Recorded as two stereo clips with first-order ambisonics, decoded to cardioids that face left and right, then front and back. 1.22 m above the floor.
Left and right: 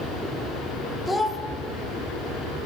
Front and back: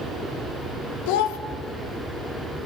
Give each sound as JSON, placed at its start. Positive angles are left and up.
{"t": 1.1, "sound": "a child speaking", "azimuth_deg": 5, "distance_m": 0.6}